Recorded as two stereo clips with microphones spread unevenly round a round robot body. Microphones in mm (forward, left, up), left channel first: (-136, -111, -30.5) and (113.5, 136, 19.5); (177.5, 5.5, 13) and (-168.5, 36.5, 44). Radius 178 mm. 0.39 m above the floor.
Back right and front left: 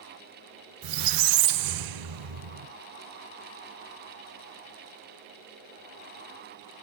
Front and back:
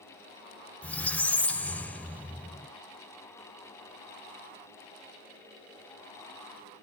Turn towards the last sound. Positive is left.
turn(degrees=80)